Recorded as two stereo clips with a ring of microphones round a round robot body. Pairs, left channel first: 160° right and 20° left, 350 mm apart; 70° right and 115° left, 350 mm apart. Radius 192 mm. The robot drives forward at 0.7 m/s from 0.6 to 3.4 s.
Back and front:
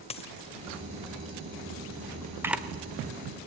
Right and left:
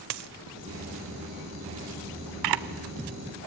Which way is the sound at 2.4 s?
105° left.